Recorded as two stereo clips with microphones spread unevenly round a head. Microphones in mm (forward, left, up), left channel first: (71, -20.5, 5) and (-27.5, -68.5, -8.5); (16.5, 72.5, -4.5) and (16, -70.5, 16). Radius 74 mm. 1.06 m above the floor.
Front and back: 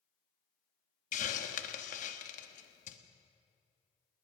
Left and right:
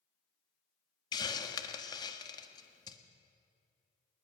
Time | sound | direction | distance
1.1 | a hiss | 25° left | 1.4 m